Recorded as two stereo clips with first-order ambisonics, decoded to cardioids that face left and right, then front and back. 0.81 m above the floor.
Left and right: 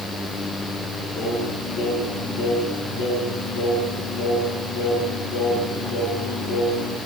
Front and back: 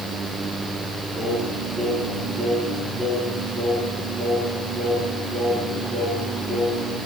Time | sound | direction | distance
1.1 | singing | 110° left | 10 m